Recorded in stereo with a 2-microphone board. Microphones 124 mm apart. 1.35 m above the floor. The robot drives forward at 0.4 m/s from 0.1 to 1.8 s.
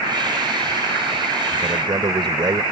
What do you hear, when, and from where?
1.6 s a man speaking: 40° right (ahead or behind)